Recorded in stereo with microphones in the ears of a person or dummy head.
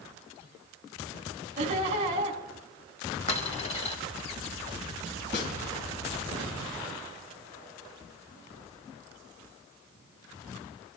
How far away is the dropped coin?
About 2.5 m.